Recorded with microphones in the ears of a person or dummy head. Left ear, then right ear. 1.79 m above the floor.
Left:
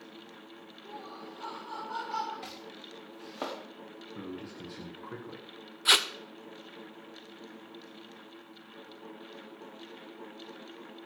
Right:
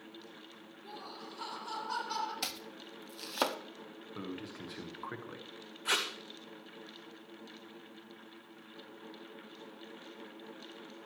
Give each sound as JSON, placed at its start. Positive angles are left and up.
{"t": 0.8, "sound": "laughter", "side_deg": -35, "distance_m": 4.5}
{"t": 2.4, "sound": "chopping", "side_deg": -60, "distance_m": 1.1}
{"t": 4.2, "sound": "a man speaking", "side_deg": -25, "distance_m": 1.3}
{"t": 5.8, "sound": "tape being pulled", "side_deg": 25, "distance_m": 0.8}